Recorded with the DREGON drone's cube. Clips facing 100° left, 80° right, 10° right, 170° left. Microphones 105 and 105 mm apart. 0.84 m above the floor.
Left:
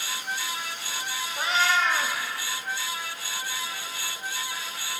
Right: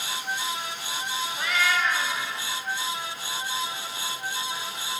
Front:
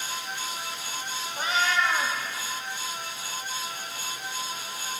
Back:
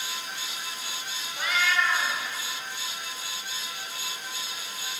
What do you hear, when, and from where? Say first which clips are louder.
1.4 s a cat meowing: left 2 dB, front 1 dB; 40° left, 1.0 m